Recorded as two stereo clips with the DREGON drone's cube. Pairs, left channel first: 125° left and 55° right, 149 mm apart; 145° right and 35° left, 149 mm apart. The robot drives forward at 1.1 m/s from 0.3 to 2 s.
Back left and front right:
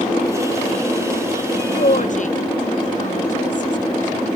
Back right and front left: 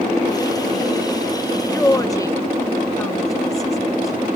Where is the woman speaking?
135° left, 0.7 m; by 4.3 s 150° left, 0.9 m.